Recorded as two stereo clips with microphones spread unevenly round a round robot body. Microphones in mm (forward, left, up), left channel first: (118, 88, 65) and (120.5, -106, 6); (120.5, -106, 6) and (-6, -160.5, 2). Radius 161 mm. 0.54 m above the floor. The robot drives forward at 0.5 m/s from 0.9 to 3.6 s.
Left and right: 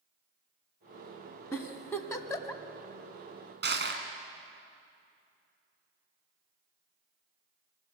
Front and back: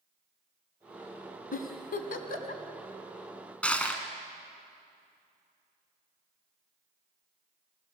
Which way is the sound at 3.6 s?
60° right.